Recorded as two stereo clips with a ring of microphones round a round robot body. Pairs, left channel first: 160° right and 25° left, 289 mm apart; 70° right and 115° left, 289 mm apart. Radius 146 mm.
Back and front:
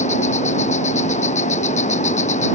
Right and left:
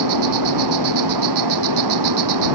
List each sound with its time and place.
0.0 s an insect: 135° left